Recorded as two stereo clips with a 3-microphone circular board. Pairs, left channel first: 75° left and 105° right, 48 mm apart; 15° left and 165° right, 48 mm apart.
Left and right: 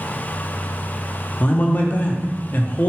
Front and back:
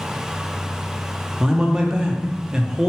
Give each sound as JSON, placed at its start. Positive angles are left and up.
{"t": 1.4, "sound": "a man speaking", "azimuth_deg": 120, "distance_m": 0.6}